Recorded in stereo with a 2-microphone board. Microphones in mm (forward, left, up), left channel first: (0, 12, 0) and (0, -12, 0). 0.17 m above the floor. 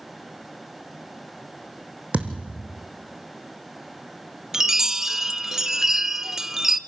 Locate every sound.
2.1 s a thud: 75° right (ahead or behind), 2.5 m
4.5 s a chime: 20° right (ahead or behind), 0.7 m